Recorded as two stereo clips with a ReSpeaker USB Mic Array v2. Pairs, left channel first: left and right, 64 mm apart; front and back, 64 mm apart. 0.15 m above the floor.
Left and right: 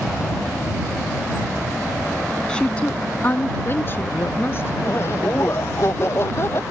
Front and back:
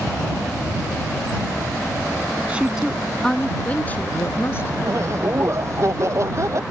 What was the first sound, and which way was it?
A woman speaking, 145° left.